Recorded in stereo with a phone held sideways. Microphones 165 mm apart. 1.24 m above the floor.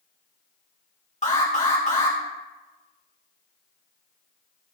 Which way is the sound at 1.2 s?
45° left (ahead or behind).